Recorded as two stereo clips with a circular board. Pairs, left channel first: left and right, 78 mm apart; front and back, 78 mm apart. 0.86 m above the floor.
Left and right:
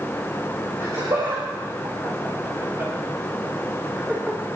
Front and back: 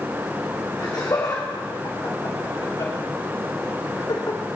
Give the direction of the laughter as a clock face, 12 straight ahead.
2 o'clock.